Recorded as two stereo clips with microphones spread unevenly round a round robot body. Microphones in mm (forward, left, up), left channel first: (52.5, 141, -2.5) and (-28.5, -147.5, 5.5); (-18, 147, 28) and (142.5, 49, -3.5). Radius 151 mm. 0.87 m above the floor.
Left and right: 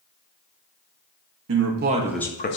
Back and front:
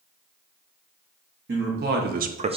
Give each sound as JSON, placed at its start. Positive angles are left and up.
{"t": 1.5, "sound": "a man speaking", "azimuth_deg": -65, "distance_m": 0.7}